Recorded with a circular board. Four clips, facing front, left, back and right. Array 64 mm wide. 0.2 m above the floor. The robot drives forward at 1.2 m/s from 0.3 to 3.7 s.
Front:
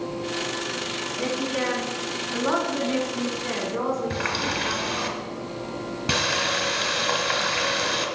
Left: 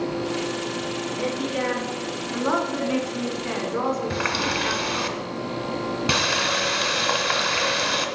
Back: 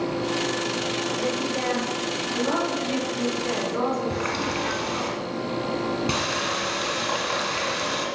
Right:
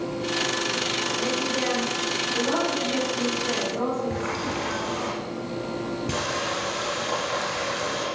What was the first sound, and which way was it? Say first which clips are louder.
A woman speaking: left 2 dB, even; 30° left.